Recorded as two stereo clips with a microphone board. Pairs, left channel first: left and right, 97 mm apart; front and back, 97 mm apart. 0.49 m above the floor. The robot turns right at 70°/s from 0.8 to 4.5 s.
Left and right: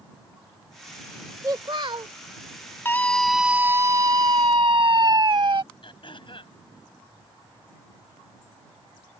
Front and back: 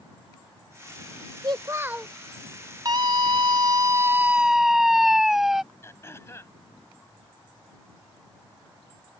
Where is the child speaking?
145° right; by 2.1 s 95° right.